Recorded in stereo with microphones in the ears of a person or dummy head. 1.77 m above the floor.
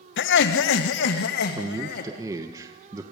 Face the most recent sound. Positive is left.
turn(degrees=-15)  # may be behind; listen again after turning